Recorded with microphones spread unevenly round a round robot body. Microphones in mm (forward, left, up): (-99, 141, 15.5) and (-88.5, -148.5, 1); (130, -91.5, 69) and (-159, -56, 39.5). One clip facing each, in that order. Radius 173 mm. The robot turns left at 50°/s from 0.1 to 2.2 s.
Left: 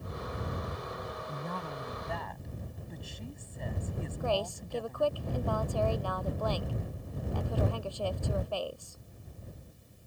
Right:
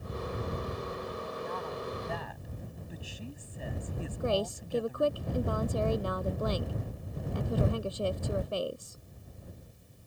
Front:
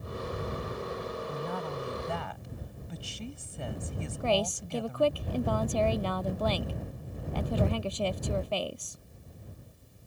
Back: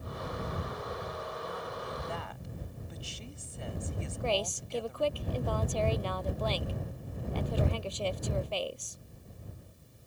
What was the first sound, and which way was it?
A woman speaking, 45° left.